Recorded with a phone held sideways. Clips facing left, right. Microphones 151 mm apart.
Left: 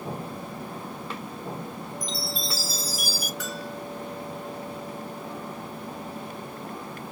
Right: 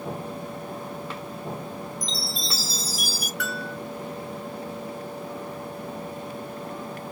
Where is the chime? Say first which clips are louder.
Even; 25° right (ahead or behind), 1.4 m.